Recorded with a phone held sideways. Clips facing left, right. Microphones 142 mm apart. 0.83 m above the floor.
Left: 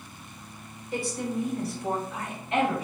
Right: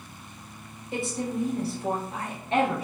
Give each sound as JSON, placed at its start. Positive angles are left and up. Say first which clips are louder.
{"t": 0.9, "sound": "a woman speaking", "louder": "even", "side_deg": -20, "distance_m": 0.9}